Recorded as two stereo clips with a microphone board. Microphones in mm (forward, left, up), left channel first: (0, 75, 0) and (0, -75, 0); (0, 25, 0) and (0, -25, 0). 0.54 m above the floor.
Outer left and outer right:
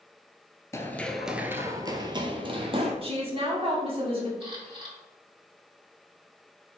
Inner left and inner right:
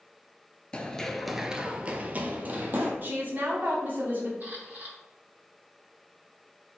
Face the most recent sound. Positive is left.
turn(degrees=-40)  # may be behind; listen again after turning